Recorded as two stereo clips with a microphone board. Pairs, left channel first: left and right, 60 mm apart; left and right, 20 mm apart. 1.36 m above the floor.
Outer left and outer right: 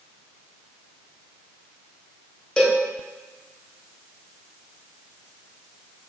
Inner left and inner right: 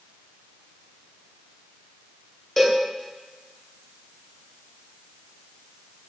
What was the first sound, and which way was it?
A cowbell, 15° left (ahead or behind).